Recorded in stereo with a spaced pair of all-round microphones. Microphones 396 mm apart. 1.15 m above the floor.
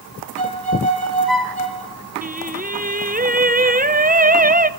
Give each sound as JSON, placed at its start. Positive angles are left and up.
{"t": 0.4, "sound": "a violin", "side_deg": -60, "distance_m": 4.0}
{"t": 2.2, "sound": "singing", "side_deg": -20, "distance_m": 0.7}